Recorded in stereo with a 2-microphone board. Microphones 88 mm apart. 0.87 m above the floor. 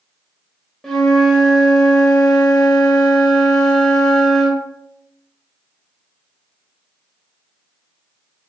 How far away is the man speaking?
No man speaking in this recording.